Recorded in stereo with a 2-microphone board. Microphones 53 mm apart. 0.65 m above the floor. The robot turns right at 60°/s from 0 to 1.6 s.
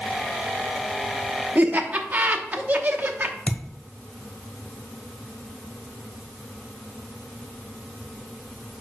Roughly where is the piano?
I don't hear a piano.